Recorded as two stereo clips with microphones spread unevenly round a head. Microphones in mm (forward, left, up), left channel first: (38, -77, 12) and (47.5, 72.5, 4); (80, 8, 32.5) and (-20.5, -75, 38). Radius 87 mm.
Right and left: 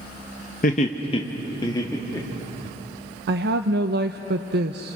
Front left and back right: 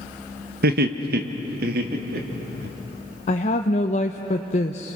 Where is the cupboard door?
No cupboard door in this recording.